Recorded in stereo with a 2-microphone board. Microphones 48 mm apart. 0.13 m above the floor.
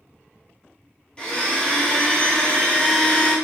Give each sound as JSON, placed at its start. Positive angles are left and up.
{"t": 1.2, "sound": "a blender", "side_deg": 20, "distance_m": 0.8}